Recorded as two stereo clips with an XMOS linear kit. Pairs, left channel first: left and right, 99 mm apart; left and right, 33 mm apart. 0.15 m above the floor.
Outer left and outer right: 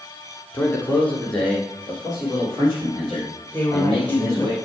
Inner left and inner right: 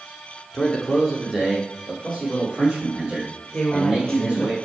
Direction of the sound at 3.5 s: 20° left (ahead or behind).